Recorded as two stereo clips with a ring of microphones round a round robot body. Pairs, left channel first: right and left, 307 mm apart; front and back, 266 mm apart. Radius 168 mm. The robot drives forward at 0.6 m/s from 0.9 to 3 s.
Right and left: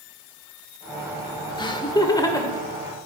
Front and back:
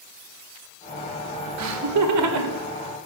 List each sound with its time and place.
1.6 s laughter: 165° right, 1.4 m; by 2.6 s 170° right, 2.0 m